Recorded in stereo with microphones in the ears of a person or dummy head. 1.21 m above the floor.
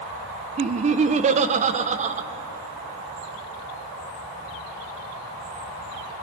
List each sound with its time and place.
0.6 s laughter: 35° right (ahead or behind), 1.0 m